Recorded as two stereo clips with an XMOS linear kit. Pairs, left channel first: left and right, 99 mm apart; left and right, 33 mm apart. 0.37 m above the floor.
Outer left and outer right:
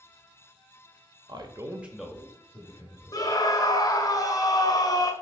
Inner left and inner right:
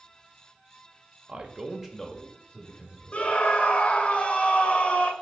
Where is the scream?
35° left (ahead or behind), 1.1 m.